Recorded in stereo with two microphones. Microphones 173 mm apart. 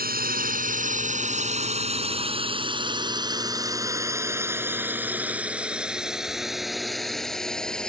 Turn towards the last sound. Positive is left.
turn(degrees=5)  # may be behind; listen again after turning